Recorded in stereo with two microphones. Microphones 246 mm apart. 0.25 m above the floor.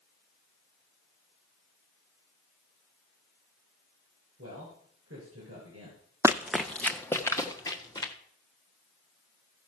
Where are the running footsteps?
15° right (ahead or behind), 0.5 m; by 8.1 s 15° left (ahead or behind), 2.5 m.